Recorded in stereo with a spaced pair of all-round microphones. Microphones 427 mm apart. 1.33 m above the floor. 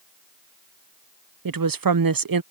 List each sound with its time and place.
1.4 s a woman speaking: 55° right (ahead or behind)